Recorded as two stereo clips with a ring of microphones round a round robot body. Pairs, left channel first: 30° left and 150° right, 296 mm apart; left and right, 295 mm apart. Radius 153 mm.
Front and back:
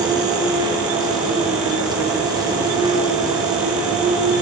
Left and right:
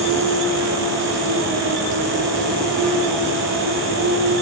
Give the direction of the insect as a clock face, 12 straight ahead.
3 o'clock.